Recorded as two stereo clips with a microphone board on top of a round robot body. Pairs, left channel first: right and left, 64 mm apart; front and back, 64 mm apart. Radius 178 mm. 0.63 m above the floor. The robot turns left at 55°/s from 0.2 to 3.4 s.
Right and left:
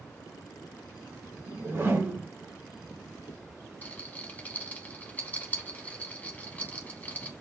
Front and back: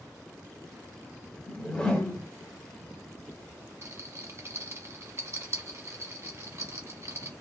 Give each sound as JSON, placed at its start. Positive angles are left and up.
{"t": 1.5, "sound": "a whoosh", "azimuth_deg": 85, "distance_m": 1.4}
{"t": 3.8, "sound": "a rattle", "azimuth_deg": -145, "distance_m": 1.0}